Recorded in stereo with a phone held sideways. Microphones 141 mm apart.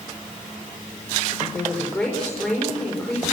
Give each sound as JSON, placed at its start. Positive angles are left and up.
{"t": 1.5, "sound": "a woman speaking", "side_deg": 5, "distance_m": 5.0}